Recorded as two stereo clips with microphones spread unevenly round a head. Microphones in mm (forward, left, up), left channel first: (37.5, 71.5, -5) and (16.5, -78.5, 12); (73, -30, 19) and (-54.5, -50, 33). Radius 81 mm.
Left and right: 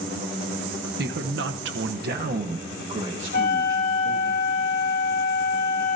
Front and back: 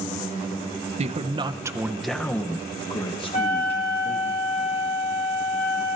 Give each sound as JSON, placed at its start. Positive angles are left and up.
{"t": 1.0, "sound": "a man speaking", "azimuth_deg": -135, "distance_m": 1.2}
{"t": 3.3, "sound": "a flute", "azimuth_deg": 65, "distance_m": 2.5}